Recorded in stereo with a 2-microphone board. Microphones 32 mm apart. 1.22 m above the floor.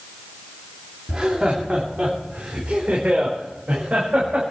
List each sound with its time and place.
1.1 s laughter: 25° right (ahead or behind), 3 m; by 4.4 s 45° right (ahead or behind), 6 m